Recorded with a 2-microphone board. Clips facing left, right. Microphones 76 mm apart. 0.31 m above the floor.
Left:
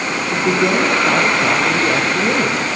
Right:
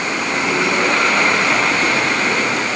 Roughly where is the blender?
I don't hear a blender.